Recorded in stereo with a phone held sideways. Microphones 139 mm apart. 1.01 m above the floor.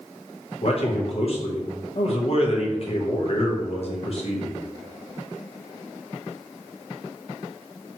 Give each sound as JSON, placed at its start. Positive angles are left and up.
{"t": 0.6, "sound": "a man speaking", "side_deg": 50, "distance_m": 0.9}